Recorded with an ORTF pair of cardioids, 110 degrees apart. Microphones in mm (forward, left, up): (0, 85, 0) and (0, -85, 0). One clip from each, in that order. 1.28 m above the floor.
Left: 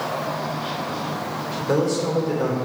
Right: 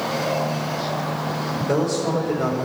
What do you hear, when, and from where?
1.6 s a man speaking: 10° left, 3.5 m